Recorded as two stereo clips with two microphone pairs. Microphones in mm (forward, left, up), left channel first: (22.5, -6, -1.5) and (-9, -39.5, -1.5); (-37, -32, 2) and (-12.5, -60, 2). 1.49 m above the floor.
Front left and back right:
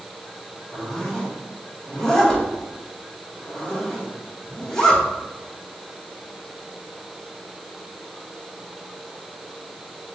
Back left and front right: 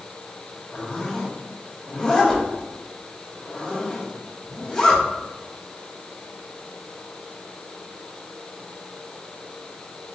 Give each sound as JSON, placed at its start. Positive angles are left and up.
{"t": 0.7, "sound": "a zipper", "azimuth_deg": 105, "distance_m": 1.0}